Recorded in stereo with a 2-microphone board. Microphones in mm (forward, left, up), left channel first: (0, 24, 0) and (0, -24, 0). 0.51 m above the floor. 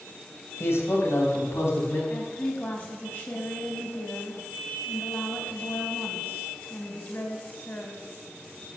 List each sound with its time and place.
0.6 s a man speaking: 60° left (ahead or behind), 3 m; by 2.0 s 70° left (ahead or behind), 5 m
2.1 s a woman speaking: 45° left (ahead or behind), 3.5 m